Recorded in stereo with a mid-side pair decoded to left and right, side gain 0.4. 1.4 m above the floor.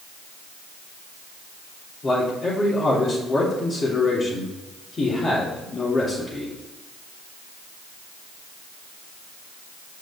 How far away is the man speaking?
About 3 m.